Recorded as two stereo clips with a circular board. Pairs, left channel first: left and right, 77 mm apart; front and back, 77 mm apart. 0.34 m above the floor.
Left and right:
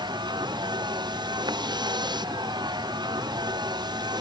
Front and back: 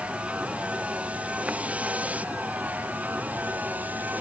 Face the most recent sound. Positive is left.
turn(degrees=-110)